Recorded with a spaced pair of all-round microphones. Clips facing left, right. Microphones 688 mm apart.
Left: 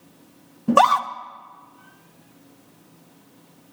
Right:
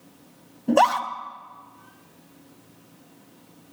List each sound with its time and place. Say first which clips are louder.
0.7 s a scream: left 1 dB; 40° left (ahead or behind), 0.8 m